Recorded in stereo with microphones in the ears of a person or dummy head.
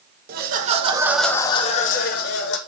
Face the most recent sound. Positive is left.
turn(degrees=60)  # may be behind; listen again after turning